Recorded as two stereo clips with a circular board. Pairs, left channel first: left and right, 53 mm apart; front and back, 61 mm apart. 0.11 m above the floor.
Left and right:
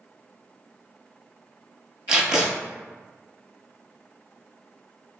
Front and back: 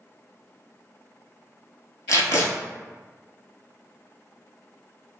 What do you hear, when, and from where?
2.1 s tape being pulled: 15° right, 0.8 m